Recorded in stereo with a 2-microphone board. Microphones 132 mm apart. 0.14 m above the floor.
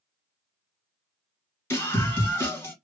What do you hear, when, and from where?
1.7 s a scream: 20° left (ahead or behind), 2 m